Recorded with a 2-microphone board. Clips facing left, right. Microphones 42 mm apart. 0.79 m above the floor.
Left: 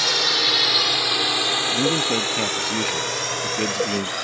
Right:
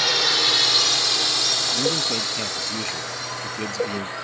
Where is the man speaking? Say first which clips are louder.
Left 3 dB; 25° left (ahead or behind).